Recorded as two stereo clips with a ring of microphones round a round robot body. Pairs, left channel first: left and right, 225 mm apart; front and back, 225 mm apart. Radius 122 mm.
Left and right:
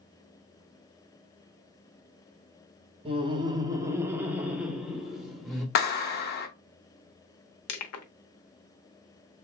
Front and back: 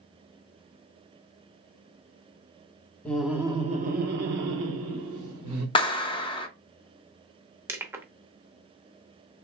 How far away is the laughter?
About 0.6 m.